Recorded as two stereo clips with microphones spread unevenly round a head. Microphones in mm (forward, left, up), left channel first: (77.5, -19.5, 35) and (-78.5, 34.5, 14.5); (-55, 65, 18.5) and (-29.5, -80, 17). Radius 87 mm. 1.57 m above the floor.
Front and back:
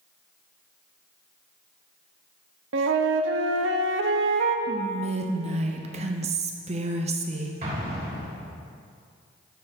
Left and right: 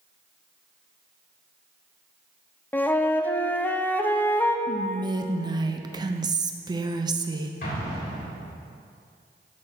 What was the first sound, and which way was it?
A flute, straight behind.